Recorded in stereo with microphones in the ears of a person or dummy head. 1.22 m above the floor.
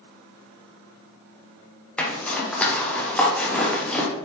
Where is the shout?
I don't hear a shout.